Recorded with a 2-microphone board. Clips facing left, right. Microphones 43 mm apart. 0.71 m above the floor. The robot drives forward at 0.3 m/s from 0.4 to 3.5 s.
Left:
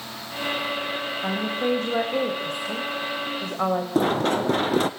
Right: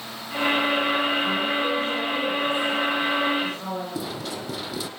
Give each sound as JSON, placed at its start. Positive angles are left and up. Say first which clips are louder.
{"t": 1.2, "sound": "a woman speaking", "louder": "right 1 dB", "side_deg": 60, "distance_m": 3.5}
{"t": 4.0, "sound": "running footsteps", "louder": "left 10 dB", "side_deg": 50, "distance_m": 1.2}